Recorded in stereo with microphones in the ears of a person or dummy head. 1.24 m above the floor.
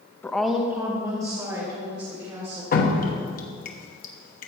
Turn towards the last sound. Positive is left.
turn(degrees=40)  # may be behind; listen again after turning